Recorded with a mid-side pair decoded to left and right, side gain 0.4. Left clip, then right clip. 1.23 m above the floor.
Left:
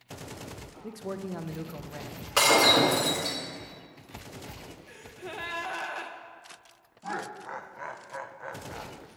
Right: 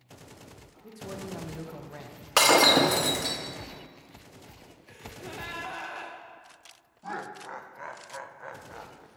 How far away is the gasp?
About 0.7 m.